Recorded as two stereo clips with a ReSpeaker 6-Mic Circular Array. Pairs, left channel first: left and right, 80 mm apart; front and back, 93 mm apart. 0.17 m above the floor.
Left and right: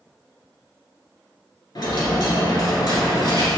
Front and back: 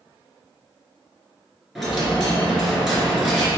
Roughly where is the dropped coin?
Left.